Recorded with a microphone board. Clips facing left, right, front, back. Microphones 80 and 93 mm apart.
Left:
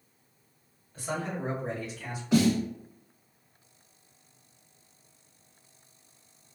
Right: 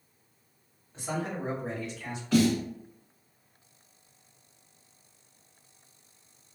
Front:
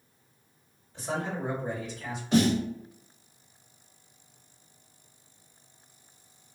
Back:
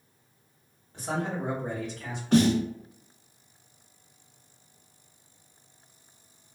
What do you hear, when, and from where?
0.9 s a man speaking: 155° right, 1.3 m; by 2.2 s 165° left, 1.5 m
2.3 s a snare drum: 160° left, 1.8 m